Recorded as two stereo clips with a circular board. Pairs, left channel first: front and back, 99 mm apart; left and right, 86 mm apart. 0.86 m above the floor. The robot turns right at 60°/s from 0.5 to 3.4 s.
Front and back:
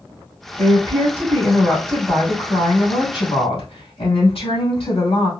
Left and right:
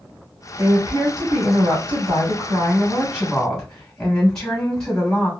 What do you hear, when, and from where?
0.6 s a woman speaking: 165° right, 2.5 m; by 5.3 s 5° left, 2.5 m